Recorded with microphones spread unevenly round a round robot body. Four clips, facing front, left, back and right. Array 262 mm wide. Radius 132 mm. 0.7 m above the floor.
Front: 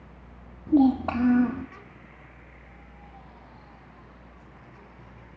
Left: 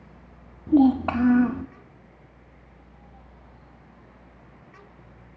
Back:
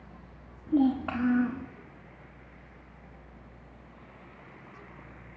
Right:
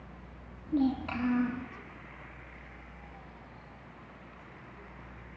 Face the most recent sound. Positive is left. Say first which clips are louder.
# left 11 dB, front 5 dB
turn(degrees=60)